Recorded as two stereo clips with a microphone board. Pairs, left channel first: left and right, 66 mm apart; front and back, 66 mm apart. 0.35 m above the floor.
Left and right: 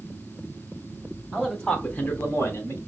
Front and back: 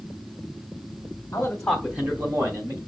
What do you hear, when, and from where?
1.3 s a man speaking: 10° right, 1.0 m; by 2.8 s 140° left, 2 m